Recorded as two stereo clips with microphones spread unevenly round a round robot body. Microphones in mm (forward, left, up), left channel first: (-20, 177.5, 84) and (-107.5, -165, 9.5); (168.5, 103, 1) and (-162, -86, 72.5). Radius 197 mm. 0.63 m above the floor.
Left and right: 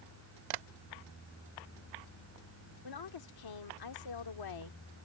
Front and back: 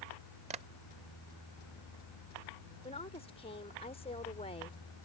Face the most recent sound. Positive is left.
turn(degrees=100)